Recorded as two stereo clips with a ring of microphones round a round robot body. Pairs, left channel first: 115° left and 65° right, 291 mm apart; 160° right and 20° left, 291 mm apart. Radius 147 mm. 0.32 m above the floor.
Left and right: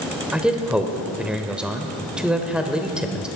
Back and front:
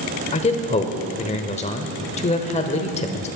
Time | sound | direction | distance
0.3 | a man speaking | 150° right | 0.9 m